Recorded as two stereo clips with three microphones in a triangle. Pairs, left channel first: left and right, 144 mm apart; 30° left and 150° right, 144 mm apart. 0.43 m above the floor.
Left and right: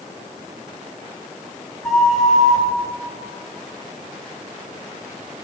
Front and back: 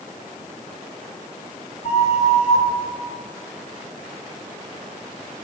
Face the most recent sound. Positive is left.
turn(degrees=0)